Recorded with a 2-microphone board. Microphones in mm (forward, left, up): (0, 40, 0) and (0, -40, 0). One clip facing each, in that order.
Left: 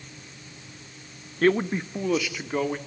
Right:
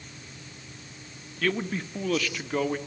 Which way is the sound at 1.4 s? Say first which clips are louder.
Left 7 dB; 35° left (ahead or behind).